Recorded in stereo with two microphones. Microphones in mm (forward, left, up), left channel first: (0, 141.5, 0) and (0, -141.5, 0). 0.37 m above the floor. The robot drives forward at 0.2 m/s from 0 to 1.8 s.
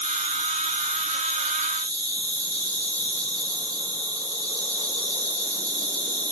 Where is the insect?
25° left (ahead or behind), 2.5 m.